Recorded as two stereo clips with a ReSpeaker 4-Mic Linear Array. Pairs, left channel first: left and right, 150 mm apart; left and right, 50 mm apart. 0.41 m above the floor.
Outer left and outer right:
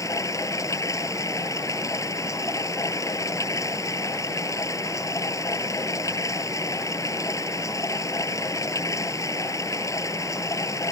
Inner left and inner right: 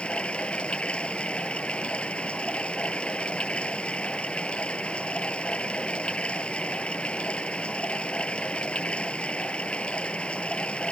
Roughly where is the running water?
Left.